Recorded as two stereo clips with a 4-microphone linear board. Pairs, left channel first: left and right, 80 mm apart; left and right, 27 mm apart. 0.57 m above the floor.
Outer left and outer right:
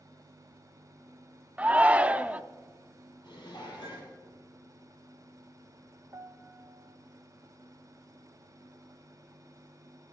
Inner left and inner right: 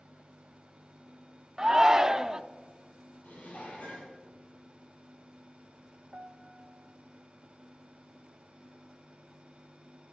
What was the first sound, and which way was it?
A shout, 15° right (ahead or behind).